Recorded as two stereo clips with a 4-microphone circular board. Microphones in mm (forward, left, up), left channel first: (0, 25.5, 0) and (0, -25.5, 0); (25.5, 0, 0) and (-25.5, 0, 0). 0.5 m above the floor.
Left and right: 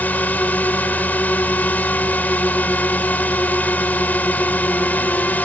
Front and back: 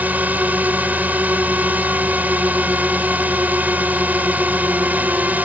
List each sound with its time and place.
0.0 s a drone: 135° left